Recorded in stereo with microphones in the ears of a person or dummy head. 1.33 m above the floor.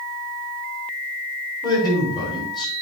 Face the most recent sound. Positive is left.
turn(degrees=20)  # may be behind; listen again after turning